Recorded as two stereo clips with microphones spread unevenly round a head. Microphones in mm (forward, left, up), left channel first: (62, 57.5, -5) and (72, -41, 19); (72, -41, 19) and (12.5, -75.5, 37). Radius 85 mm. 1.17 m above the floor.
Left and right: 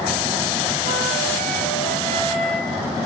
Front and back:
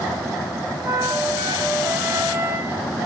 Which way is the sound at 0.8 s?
95° right.